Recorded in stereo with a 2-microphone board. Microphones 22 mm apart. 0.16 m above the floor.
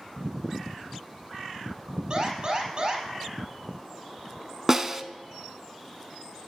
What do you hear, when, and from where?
2.1 s an alarm: 40° right (ahead or behind), 3.5 m
4.7 s a snare drum: 20° right (ahead or behind), 0.6 m